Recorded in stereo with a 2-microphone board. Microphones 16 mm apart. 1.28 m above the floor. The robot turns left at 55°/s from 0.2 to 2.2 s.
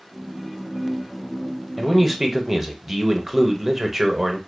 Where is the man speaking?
10° left (ahead or behind), 0.6 m; by 4.4 s 15° right (ahead or behind), 0.6 m.